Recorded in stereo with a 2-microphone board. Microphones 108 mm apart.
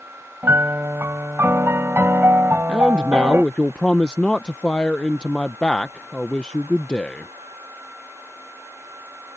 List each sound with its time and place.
0.4 s a piano: 25° right (ahead or behind)
2.7 s a man speaking: 10° left (ahead or behind)